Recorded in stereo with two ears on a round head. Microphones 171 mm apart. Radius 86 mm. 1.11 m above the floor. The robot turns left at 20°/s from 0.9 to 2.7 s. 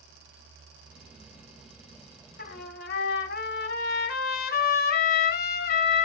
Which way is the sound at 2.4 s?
50° left (ahead or behind).